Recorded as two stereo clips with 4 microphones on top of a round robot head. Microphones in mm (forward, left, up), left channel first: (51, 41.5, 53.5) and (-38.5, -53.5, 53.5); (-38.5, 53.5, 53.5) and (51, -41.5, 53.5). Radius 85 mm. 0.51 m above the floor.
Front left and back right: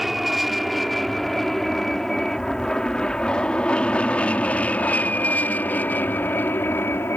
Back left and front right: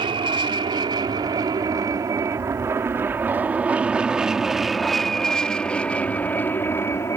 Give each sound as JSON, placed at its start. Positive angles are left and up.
{"t": 0.0, "sound": "an aircraft", "azimuth_deg": -45}